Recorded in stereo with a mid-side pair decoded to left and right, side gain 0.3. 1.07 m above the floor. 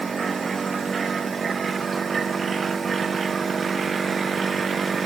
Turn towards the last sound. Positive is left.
No sound to turn to.